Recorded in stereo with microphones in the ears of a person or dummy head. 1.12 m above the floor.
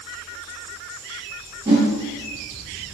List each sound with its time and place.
1.6 s a whoosh: 25° right (ahead or behind), 1.3 m